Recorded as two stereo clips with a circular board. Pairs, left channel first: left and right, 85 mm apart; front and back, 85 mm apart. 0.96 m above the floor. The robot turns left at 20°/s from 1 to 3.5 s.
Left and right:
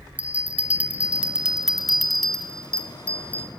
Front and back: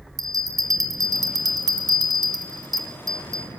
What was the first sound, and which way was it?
A bell, 160° right.